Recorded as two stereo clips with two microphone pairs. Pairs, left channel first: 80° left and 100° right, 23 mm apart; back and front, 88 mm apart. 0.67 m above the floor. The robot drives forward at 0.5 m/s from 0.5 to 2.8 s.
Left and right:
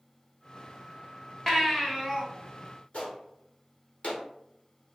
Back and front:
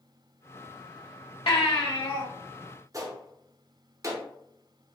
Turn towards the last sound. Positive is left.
turn(degrees=50)